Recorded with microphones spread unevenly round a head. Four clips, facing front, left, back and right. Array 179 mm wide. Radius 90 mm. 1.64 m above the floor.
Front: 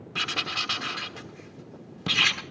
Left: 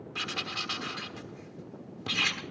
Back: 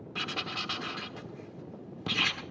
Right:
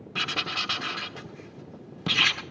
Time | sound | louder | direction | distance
0.1 | writing | right 6 dB, front 4 dB | 60° right | 1.3 m